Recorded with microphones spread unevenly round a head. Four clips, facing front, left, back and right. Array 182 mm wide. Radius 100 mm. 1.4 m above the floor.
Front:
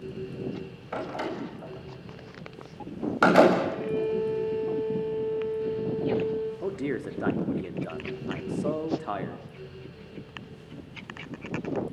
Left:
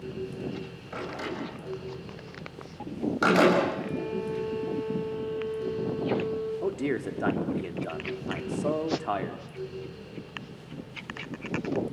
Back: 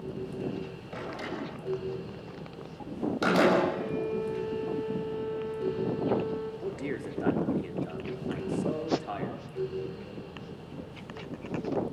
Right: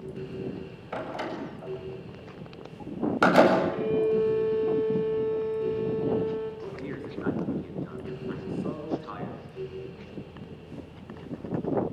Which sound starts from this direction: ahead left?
A man speaking, at 6.6 s.